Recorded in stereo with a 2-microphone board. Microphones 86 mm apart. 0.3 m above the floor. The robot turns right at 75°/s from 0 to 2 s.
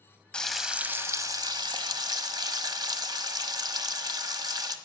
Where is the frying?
165° left, 1.1 m; by 4.8 s 70° right, 1.1 m.